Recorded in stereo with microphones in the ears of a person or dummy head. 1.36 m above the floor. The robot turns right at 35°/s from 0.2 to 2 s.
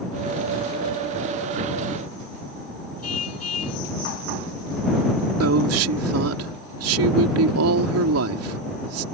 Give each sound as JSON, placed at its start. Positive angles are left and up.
{"t": 3.0, "sound": "a car horn", "side_deg": 85}
{"t": 5.4, "sound": "a woman speaking", "side_deg": -85}